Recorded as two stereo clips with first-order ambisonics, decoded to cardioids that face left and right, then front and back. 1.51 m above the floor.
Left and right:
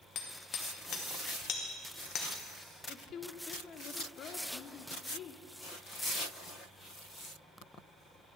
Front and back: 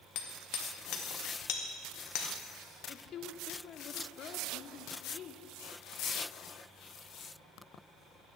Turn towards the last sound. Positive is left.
turn(degrees=45)